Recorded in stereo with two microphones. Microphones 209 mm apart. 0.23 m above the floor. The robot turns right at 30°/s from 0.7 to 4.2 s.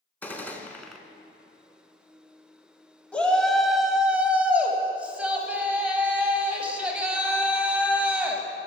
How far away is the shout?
About 1.1 m.